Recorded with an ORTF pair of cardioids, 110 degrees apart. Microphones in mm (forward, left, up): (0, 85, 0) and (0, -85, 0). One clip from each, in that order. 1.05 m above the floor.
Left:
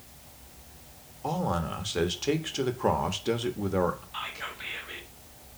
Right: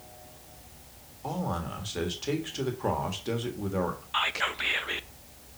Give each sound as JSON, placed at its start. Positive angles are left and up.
{"t": 1.2, "sound": "a man speaking", "azimuth_deg": 20, "distance_m": 1.6}
{"t": 4.1, "sound": "whispering", "azimuth_deg": -50, "distance_m": 0.7}